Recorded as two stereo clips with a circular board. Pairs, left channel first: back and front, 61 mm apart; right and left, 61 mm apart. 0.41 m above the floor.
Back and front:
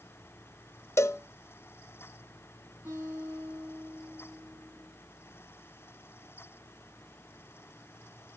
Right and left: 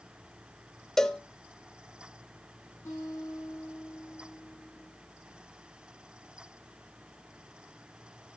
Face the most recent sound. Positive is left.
turn(degrees=-55)